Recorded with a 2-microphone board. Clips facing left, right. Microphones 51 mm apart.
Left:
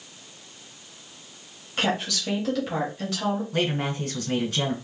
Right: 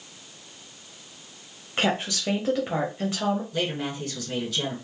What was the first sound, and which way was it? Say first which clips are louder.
A woman speaking: right 1 dB; 25° right (ahead or behind).